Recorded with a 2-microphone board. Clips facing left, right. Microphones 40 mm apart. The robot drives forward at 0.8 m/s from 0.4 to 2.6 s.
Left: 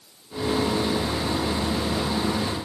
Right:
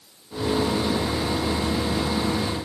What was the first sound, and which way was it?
Only background noise.